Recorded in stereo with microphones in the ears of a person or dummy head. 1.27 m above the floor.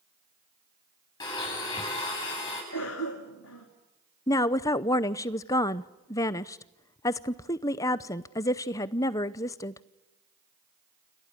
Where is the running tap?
I don't hear a running tap.